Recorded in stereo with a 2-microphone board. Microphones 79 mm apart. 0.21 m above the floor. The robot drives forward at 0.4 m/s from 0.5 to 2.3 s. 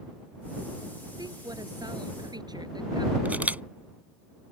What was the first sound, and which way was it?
A woman speaking, 60° right (ahead or behind).